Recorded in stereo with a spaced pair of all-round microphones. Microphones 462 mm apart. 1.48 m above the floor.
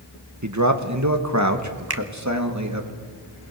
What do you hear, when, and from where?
0.4 s a man speaking: 35° right (ahead or behind), 1.8 m
1.9 s a finger snap: 55° right (ahead or behind), 1.4 m